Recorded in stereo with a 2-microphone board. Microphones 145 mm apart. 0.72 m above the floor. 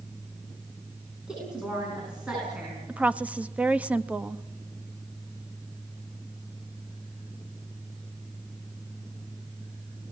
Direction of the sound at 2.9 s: 10° right (ahead or behind).